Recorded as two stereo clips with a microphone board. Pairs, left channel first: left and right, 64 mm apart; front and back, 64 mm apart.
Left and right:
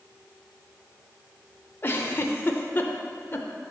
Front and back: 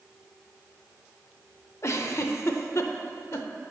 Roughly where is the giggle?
Ahead left.